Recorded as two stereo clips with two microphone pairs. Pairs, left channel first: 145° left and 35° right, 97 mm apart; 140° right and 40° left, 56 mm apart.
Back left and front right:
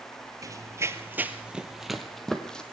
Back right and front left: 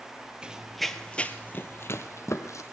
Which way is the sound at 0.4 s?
20° right.